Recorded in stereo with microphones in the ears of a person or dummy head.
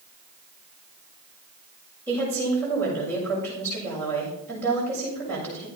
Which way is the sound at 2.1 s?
20° left (ahead or behind).